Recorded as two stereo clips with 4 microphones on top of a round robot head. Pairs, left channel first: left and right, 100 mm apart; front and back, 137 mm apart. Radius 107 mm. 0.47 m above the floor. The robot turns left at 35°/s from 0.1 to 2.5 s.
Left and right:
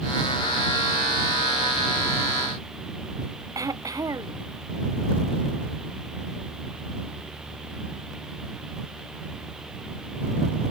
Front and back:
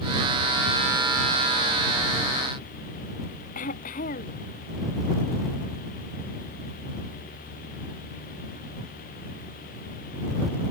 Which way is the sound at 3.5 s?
35° right.